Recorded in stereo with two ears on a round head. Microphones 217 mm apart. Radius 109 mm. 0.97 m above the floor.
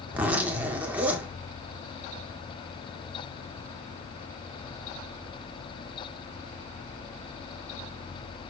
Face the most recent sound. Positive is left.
turn(degrees=-5)  # may be behind; listen again after turning